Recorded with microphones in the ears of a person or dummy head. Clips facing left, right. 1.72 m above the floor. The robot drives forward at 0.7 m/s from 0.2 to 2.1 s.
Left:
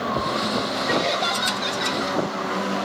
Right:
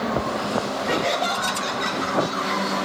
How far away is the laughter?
About 6.5 m.